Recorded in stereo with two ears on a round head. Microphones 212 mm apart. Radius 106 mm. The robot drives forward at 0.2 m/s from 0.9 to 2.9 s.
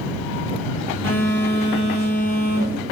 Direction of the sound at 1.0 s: 55° left (ahead or behind).